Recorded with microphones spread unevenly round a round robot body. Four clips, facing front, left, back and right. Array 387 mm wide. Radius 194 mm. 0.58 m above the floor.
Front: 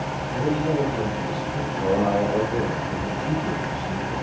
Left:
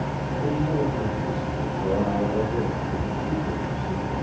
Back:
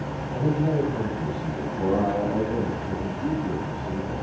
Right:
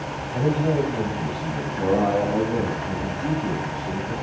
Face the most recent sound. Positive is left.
turn(degrees=-115)